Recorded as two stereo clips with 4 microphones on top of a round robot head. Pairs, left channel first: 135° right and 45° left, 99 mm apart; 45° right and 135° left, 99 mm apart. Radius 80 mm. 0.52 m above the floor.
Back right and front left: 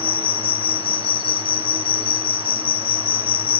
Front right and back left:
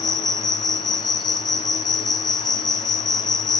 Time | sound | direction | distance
0.0 | an insect | 95° right | 0.9 m